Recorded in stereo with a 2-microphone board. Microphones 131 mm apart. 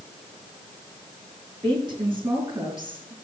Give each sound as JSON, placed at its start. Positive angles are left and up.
{"t": 1.6, "sound": "a woman speaking", "side_deg": -35, "distance_m": 4.5}